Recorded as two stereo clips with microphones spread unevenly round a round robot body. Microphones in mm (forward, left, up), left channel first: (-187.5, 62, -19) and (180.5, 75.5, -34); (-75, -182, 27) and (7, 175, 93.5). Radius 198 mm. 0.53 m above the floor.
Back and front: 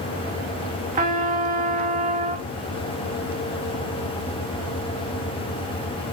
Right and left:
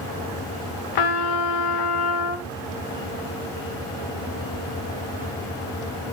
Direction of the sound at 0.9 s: 70° right.